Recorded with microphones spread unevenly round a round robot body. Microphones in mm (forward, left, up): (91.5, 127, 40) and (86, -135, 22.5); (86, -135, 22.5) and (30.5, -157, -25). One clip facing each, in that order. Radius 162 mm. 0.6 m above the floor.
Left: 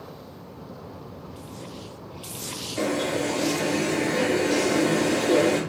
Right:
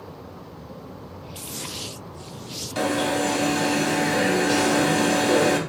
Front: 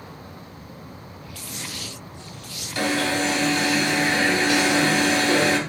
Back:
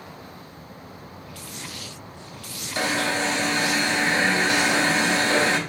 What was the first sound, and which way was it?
An alarm, 110° right.